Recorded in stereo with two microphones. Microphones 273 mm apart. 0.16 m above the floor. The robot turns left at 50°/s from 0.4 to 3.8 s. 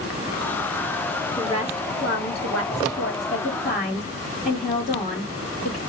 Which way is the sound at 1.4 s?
160° left.